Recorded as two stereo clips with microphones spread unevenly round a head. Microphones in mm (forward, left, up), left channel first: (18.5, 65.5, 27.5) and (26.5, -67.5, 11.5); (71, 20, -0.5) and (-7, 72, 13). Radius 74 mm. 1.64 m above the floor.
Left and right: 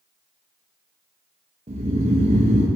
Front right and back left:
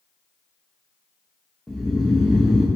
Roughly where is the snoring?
Behind right.